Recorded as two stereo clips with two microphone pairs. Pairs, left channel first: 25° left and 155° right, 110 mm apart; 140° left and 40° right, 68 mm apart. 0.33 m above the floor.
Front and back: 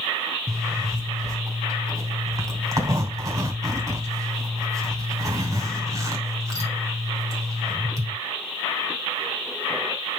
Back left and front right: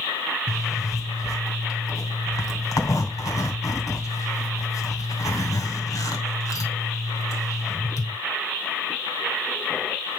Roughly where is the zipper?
Behind.